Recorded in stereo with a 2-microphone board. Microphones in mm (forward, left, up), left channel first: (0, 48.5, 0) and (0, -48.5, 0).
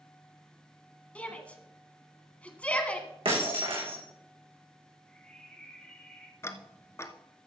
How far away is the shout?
About 1.5 m.